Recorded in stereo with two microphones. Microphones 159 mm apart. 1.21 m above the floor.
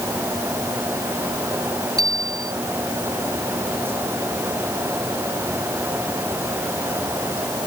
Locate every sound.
2.0 s a bicycle bell: 25° right (ahead or behind)